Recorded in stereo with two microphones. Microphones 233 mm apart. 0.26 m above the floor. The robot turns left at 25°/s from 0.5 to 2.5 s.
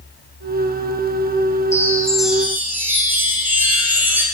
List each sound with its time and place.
1.7 s a chime: 10° left (ahead or behind), 5.5 m; by 4.2 s 10° right (ahead or behind), 5.5 m